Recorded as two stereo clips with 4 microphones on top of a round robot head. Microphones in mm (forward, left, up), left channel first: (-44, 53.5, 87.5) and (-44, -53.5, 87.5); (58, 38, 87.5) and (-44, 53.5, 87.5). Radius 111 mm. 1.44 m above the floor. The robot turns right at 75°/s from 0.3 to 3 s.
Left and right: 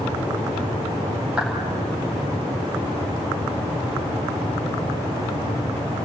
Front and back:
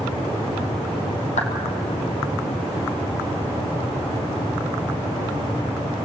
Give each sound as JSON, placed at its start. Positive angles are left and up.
{"t": 1.4, "sound": "a clap", "azimuth_deg": -5, "distance_m": 4.0}